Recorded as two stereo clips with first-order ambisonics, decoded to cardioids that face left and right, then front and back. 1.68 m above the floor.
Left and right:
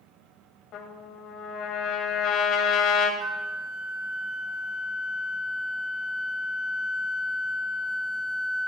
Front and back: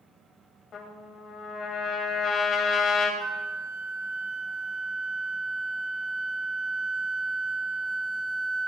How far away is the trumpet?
About 2.5 m.